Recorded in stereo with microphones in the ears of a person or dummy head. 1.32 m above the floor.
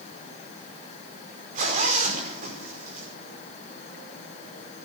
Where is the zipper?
40° right (ahead or behind), 5 m.